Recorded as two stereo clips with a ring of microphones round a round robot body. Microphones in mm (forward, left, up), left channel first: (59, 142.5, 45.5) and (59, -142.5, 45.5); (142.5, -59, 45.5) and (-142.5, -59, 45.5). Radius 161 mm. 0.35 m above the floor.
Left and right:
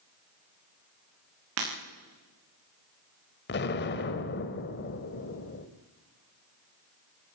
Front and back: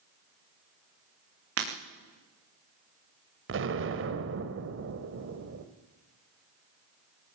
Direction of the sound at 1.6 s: 140° right.